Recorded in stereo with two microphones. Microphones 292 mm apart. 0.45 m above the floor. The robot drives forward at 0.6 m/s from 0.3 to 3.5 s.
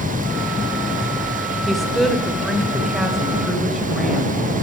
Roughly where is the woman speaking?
Centre.